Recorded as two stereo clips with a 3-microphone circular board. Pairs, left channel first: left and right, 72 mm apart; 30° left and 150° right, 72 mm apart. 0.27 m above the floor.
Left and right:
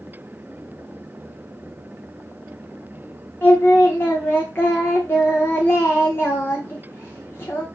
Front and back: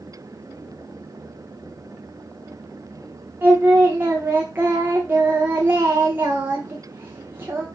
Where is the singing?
150° left, 4.5 m.